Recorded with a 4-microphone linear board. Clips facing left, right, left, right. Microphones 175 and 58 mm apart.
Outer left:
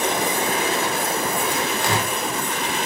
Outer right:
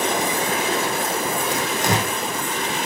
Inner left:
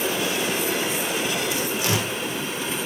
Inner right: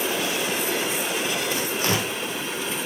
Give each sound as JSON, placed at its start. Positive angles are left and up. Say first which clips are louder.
{"t": 1.5, "sound": "tearing paper", "louder": "outer right 1 dB, even", "side_deg": -40, "distance_m": 3.0}